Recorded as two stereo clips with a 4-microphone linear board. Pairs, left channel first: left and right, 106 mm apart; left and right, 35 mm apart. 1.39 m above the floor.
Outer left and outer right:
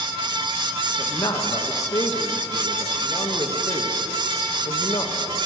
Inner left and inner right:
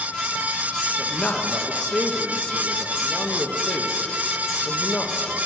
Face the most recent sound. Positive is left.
turn(degrees=30)  # may be behind; listen again after turning